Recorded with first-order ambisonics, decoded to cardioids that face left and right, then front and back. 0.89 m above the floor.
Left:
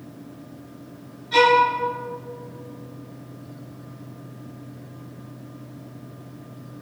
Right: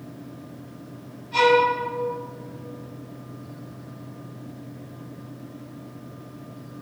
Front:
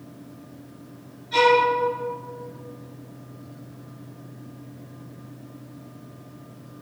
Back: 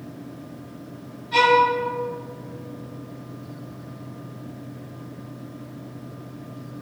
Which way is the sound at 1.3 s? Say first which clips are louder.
Left 2 dB, back 1 dB; 80° left.